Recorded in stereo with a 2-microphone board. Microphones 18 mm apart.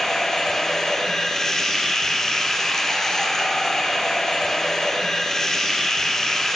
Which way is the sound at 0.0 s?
25° left (ahead or behind).